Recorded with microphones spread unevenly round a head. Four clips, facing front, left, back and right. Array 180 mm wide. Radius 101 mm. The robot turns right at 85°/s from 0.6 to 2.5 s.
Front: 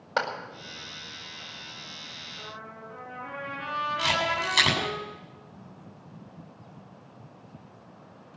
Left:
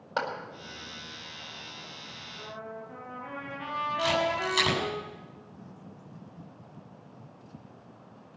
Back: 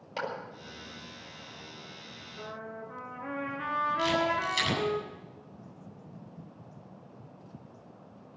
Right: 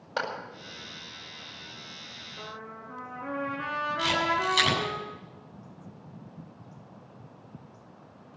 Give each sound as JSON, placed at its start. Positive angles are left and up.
{"t": 0.2, "sound": "a clap", "azimuth_deg": 5, "distance_m": 5.0}
{"t": 2.4, "sound": "a trumpet", "azimuth_deg": -130, "distance_m": 4.0}
{"t": 4.0, "sound": "a camera shutter", "azimuth_deg": 0, "distance_m": 8.0}